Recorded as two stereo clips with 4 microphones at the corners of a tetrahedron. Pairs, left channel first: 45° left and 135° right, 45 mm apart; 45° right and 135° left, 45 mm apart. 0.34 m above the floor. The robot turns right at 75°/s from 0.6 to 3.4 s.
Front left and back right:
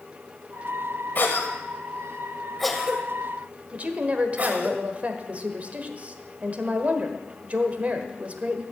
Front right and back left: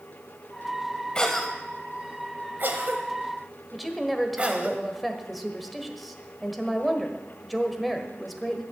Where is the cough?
20° left, 1.2 m; by 4.7 s 175° right, 1.2 m.